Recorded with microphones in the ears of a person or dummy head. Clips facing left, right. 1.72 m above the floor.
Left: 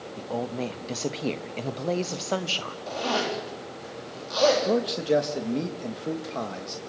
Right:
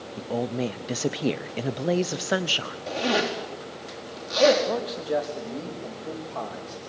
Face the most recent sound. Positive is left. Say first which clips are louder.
# left 4 dB
turn(degrees=35)  # may be behind; listen again after turning